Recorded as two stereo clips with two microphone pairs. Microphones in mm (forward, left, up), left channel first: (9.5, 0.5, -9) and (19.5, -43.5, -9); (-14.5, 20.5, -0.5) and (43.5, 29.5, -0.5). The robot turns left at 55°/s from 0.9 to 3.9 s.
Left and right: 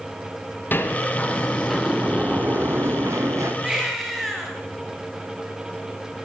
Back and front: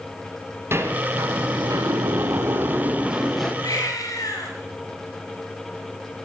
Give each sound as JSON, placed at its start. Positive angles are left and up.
{"t": 0.7, "sound": "a sliding door", "azimuth_deg": 55, "distance_m": 6.0}
{"t": 3.6, "sound": "a baby crying", "azimuth_deg": -150, "distance_m": 7.0}